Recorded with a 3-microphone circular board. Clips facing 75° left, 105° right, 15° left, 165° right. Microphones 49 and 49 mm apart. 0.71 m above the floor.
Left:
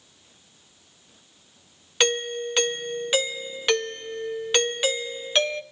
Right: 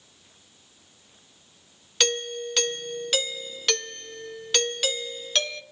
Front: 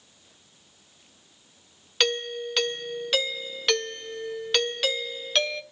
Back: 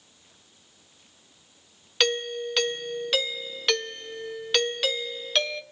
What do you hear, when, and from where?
2.0 s a doorbell: 105° left, 0.9 m